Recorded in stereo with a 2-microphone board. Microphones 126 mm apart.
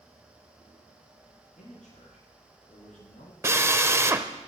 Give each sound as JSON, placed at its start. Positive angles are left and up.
{"t": 1.6, "sound": "a man speaking", "side_deg": 75, "distance_m": 8.5}
{"t": 3.4, "sound": "a drill", "side_deg": -20, "distance_m": 0.9}